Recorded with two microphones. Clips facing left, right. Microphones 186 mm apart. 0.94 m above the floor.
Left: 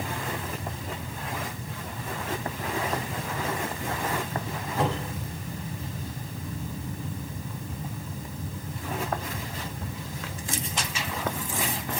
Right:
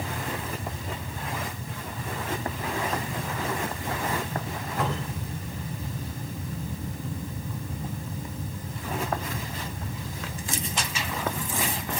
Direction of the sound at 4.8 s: 30° left (ahead or behind).